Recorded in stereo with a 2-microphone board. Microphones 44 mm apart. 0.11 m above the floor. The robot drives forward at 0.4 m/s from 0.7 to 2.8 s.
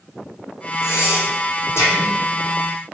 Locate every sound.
0.8 s breathing: 60° left (ahead or behind), 3 m; by 2.1 s 70° left (ahead or behind), 3 m